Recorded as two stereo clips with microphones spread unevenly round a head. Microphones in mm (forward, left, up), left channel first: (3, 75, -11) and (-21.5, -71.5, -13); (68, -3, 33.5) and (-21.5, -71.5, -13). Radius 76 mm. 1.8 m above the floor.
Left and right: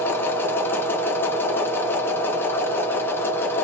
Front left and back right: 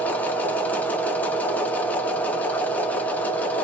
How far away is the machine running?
About 0.8 m.